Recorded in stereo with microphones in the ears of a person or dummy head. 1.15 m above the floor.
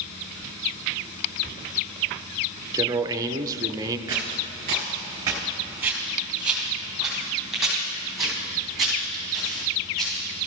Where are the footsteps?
20° right (ahead or behind), 1.3 m; by 10.2 s centre (ahead or behind), 6 m.